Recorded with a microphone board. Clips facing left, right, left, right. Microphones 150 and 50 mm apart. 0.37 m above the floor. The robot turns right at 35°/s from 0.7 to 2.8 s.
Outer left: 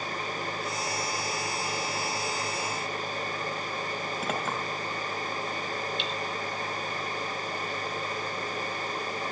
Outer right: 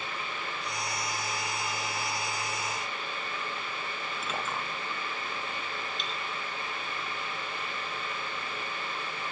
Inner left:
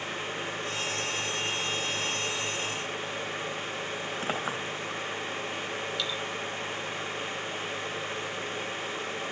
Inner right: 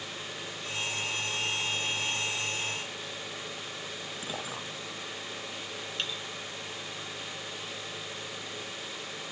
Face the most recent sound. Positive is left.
turn(degrees=-40)  # may be behind; listen again after turning